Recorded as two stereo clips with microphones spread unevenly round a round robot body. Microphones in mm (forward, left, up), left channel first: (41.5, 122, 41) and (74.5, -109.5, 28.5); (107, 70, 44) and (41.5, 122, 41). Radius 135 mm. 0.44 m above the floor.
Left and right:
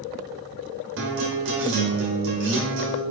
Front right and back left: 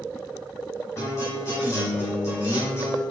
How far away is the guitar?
About 1.5 m.